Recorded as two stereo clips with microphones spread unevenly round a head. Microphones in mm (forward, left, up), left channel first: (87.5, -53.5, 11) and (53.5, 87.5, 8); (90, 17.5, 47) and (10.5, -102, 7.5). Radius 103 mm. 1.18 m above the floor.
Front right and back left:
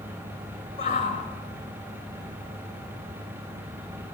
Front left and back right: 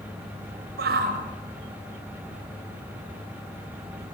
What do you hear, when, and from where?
0.8 s a shout: 130° right, 5.5 m